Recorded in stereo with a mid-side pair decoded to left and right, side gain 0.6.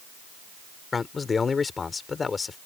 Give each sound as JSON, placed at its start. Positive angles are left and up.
{"t": 0.9, "sound": "a man speaking", "azimuth_deg": 25}